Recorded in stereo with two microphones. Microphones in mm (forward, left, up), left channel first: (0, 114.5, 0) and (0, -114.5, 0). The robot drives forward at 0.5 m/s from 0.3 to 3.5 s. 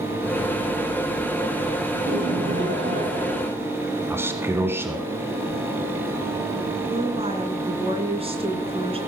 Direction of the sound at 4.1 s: 10° right (ahead or behind).